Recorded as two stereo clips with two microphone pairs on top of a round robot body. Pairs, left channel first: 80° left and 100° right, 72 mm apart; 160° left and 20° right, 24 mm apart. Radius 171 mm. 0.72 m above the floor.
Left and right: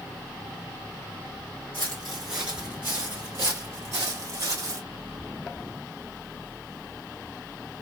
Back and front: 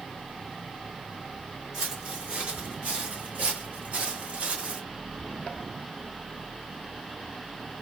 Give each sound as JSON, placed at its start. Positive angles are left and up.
{"t": 1.7, "sound": "footsteps", "azimuth_deg": 35, "distance_m": 0.8}